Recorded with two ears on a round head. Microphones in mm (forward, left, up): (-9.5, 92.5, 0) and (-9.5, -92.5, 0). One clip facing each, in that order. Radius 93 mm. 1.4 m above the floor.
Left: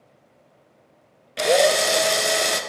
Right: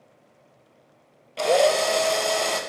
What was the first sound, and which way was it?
A drill, 20° left (ahead or behind).